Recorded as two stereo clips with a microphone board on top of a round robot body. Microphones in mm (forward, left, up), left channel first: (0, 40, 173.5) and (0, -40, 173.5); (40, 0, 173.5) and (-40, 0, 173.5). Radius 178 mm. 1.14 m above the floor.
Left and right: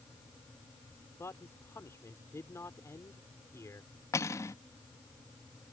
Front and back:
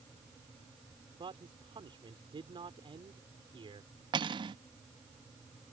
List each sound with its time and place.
1.2 s a man speaking: 150° left
4.1 s cutlery clinking: 150° left